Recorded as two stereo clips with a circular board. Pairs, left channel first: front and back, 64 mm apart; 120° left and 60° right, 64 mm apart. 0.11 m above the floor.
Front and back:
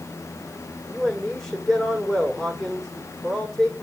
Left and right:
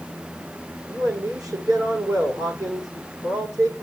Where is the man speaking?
85° right, 6 m.